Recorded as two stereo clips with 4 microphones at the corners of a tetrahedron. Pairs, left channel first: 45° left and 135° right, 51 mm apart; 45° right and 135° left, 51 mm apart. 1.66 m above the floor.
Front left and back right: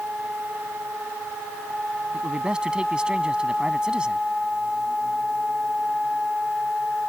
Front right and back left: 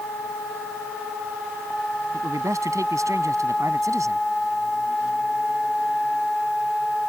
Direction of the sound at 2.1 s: 150° left.